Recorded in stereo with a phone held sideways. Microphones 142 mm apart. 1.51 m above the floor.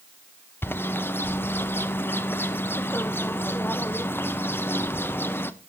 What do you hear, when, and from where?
0.6 s a bird: 15° left (ahead or behind), 0.6 m